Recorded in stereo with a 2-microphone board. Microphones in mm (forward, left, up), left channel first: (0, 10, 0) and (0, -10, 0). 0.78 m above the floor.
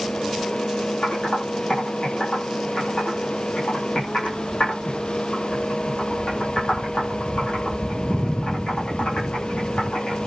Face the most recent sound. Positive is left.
turn(degrees=85)